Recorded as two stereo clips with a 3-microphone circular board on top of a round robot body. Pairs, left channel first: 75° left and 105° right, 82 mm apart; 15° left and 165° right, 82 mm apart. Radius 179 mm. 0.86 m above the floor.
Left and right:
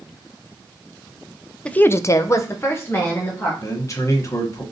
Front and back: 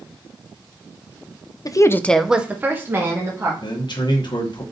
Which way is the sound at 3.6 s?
30° left.